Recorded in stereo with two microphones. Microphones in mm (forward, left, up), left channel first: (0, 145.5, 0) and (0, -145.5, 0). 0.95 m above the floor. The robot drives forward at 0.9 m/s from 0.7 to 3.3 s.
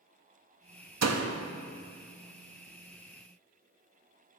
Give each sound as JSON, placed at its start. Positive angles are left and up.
{"t": 1.0, "sound": "a door slam", "side_deg": -65, "distance_m": 0.5}